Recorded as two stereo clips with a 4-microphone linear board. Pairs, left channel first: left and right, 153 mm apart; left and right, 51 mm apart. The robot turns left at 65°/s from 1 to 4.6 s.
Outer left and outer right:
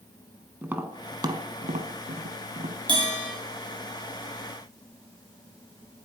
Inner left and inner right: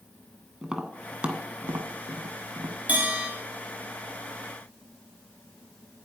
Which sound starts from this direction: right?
A bell, at 2.9 s.